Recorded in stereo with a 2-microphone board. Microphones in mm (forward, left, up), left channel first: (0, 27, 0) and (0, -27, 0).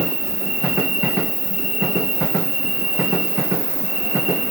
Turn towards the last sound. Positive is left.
turn(degrees=5)  # may be behind; listen again after turning